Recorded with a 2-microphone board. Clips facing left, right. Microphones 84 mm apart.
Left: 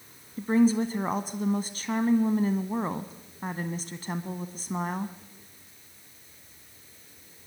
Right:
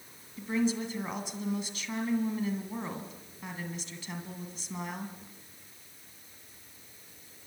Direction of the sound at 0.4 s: 40° left (ahead or behind).